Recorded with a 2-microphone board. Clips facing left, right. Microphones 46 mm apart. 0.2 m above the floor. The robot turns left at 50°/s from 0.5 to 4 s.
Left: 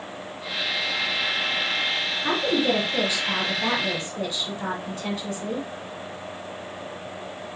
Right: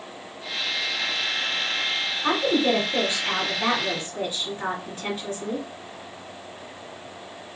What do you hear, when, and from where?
2.2 s a woman speaking: 60° right, 2 m; by 5.7 s 145° right, 2 m